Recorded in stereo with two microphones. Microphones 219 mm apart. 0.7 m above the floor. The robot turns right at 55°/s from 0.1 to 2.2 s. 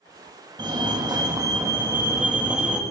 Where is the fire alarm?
20° right (ahead or behind), 1.7 m; by 2.8 s 5° right (ahead or behind), 1.7 m.